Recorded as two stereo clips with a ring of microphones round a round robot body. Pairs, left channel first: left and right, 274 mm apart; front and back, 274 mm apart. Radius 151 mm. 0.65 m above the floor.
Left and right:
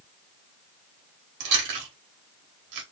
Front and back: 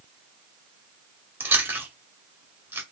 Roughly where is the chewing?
Right.